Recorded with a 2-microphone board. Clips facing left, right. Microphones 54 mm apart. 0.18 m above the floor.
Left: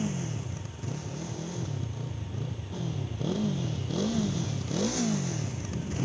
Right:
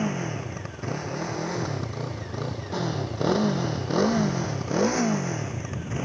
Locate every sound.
0.0 s a motorcycle: 50° right (ahead or behind); by 6.0 s 35° right (ahead or behind)